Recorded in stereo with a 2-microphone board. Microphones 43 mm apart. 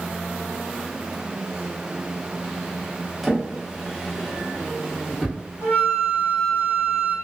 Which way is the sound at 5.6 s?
45° left (ahead or behind).